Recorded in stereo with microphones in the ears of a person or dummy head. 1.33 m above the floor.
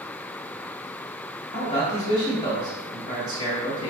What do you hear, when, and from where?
1.5 s a man speaking: 20° left (ahead or behind), 1.6 m